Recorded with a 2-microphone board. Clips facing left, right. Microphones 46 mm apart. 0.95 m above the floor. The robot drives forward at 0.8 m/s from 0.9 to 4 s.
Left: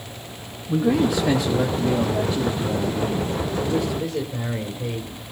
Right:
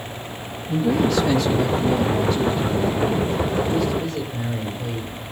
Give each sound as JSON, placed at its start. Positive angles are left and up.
{"t": 0.7, "sound": "a man speaking", "side_deg": 15, "distance_m": 1.4}